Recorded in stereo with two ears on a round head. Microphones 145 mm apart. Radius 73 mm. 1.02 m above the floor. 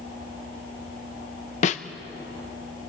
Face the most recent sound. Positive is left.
turn(degrees=45)  # may be behind; listen again after turning